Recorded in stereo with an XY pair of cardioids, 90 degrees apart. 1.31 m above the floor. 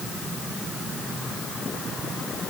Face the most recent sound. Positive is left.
No sound to turn to.